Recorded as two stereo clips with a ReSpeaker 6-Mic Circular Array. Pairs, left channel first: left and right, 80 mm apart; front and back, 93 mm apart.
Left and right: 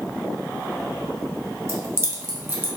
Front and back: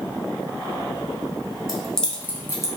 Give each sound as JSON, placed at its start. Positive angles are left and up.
{"t": 1.7, "sound": "keys jangling", "azimuth_deg": -100, "distance_m": 0.9}